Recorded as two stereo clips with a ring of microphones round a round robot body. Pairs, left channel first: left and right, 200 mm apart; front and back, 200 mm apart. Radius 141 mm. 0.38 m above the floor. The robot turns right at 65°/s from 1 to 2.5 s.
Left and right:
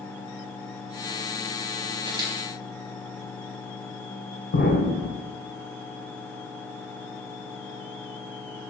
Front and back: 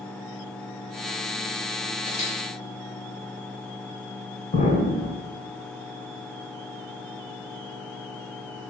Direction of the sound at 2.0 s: 40° right.